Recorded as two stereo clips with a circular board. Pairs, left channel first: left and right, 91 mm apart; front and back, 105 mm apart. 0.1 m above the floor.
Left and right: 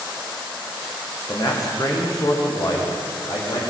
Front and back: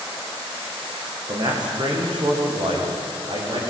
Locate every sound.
1.3 s a man speaking: 140° left, 6.5 m